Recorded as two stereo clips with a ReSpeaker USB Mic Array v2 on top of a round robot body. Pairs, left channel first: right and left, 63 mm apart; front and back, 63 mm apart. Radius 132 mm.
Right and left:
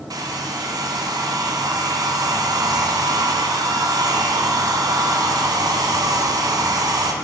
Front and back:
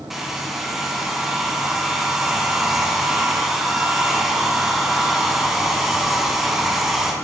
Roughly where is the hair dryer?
Left.